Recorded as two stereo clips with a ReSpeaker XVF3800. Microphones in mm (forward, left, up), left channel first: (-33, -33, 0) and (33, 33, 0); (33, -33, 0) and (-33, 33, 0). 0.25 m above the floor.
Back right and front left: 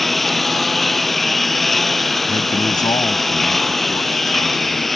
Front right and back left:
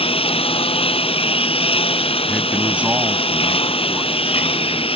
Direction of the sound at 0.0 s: 45° right.